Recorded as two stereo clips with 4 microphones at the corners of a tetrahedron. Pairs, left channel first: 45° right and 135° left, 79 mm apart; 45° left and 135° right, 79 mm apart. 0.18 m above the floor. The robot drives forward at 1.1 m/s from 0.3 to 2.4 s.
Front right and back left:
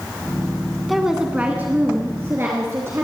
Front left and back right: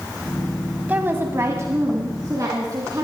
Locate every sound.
0.9 s a woman speaking: 135° right, 1.1 m; by 3.0 s 170° right, 2 m